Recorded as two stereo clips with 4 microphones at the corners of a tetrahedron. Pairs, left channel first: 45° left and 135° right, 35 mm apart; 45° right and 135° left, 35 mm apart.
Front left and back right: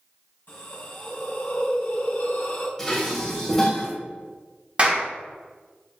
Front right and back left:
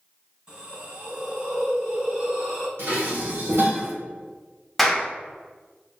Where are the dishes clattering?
120° left, 1.4 m.